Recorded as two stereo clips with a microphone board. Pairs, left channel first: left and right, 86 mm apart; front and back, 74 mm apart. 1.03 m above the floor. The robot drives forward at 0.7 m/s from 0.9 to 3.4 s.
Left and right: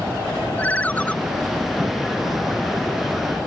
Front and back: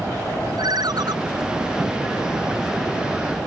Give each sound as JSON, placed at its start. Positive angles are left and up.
{"t": 0.6, "sound": "a ringtone", "azimuth_deg": 160}